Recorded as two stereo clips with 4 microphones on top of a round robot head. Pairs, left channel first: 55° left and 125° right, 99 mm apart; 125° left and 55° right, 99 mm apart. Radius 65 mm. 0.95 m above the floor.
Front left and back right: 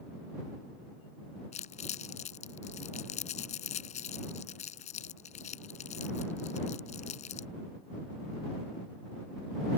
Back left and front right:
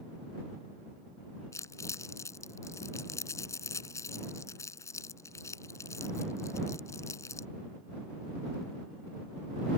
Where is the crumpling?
60° left.